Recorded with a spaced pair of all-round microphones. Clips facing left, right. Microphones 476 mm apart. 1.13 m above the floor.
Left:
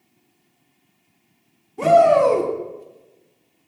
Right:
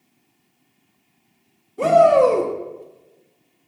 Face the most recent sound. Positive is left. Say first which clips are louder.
# right 1 dB
turn(degrees=10)  # may be behind; listen again after turning